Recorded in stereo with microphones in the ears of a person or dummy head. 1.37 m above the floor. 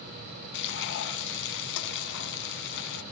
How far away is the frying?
About 2.5 m.